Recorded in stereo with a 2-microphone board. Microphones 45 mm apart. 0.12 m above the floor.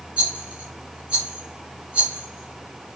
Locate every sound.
0.2 s a rattle: 25° right (ahead or behind), 1.7 m